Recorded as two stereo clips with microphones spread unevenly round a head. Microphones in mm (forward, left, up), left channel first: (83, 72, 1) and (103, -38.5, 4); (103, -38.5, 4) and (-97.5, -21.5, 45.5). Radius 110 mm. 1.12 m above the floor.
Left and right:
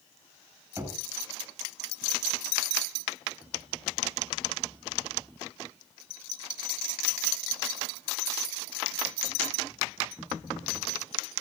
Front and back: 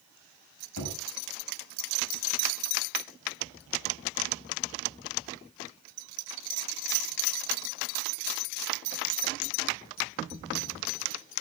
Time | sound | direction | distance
0.8 | knocking | 10° right | 7.5 m